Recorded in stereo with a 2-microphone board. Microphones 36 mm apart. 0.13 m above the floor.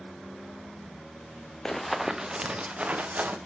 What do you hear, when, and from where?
1.6 s running footsteps: 15° left (ahead or behind), 0.8 m; by 3.4 s 45° right (ahead or behind), 1.9 m